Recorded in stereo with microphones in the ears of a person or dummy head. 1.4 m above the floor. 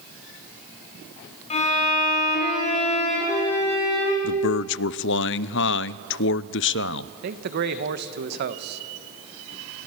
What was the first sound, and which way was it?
A violin, 35° left (ahead or behind).